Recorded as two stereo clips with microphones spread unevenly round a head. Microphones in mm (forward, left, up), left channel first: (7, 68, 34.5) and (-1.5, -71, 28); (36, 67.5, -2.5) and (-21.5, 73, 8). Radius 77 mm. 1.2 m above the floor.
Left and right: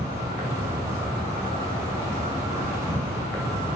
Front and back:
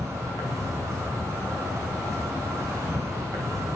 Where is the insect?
165° right, 2 m.